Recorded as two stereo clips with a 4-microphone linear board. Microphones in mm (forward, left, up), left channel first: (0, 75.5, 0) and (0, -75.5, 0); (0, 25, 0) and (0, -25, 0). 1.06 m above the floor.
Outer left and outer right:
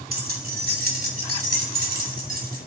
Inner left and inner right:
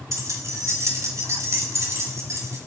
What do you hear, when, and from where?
0.1 s keys jangling: 85° right, 2.5 m; by 2.6 s 80° right, 4 m